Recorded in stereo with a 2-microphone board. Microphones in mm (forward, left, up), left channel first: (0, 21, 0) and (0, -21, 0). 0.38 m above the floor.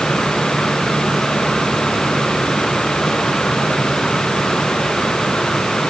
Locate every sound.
Only background noise.